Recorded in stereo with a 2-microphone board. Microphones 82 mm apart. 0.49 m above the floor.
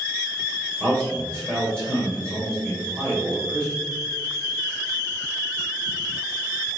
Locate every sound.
0.8 s a man speaking: 30° right (ahead or behind), 1.5 m